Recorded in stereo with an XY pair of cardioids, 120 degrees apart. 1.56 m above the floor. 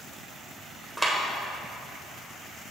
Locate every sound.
1.0 s a clap: straight ahead, 1.4 m